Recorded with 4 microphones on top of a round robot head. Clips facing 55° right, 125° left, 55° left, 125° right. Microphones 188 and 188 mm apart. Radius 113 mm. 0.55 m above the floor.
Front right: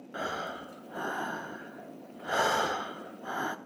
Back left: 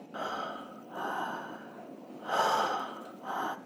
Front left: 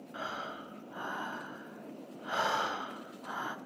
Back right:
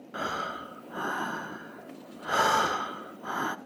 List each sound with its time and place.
0.1 s breathing: 125° right, 0.7 m